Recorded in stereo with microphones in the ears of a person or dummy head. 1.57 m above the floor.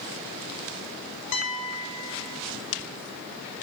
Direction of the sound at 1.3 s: 70° left (ahead or behind).